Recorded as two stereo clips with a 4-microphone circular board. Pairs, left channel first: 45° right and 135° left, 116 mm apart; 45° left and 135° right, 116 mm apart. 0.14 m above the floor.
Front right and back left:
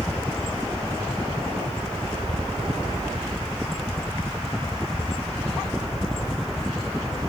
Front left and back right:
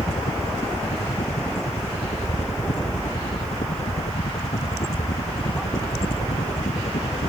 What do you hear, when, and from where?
0.0 s a helicopter: 35° left; by 7.3 s 45° left